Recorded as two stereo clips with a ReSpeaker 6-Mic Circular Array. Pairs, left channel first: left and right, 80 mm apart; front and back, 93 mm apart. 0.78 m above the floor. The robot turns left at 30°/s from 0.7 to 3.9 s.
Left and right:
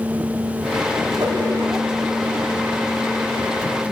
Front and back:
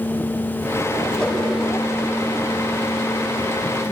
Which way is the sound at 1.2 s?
80° right.